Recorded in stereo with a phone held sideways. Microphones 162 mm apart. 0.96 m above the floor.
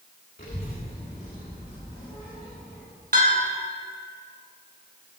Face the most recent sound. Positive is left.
turn(degrees=-75)  # may be behind; listen again after turning